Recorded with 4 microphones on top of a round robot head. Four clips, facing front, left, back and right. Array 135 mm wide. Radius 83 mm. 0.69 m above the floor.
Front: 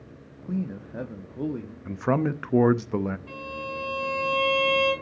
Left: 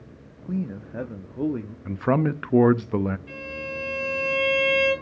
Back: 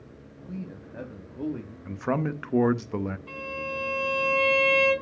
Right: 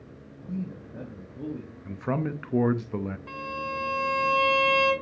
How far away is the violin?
About 7 m.